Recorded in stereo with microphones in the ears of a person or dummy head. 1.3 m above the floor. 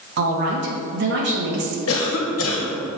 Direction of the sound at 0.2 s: 55° right (ahead or behind).